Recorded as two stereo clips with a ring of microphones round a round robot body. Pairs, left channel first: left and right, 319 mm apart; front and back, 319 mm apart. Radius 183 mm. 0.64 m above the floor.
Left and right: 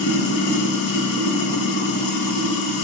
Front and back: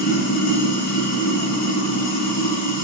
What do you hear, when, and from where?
0.0 s running water: 45° left, 0.7 m